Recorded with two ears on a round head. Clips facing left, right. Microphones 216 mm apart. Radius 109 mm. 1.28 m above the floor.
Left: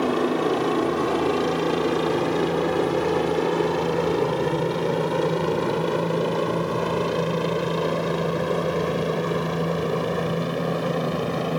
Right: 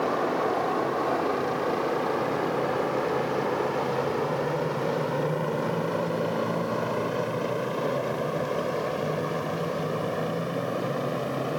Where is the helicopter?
40° left (ahead or behind); by 11.6 s 50° left (ahead or behind).